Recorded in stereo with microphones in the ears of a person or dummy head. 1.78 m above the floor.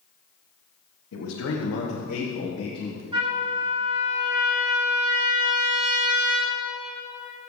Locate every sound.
1.1 s a man speaking: 75° left (ahead or behind), 1.4 m; by 3.0 s 20° left (ahead or behind), 1.8 m
3.1 s a trumpet: 30° right (ahead or behind), 3.5 m